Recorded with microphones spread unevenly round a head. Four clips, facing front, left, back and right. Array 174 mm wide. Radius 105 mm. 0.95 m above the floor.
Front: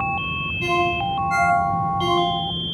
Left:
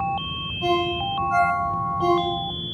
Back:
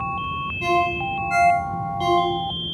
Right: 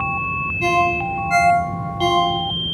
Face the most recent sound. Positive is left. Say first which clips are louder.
# right 4 dB, even
turn(degrees=-95)